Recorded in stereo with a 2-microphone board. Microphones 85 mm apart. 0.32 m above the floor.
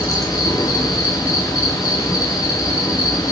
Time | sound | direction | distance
0.0 | an insect | 45° left (ahead or behind) | 4 m